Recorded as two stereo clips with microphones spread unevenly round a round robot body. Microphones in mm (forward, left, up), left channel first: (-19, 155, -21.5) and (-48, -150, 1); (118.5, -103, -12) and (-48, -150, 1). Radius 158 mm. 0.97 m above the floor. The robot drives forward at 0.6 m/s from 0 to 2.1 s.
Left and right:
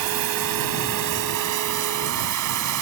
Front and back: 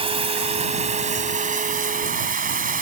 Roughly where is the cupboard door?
I don't hear a cupboard door.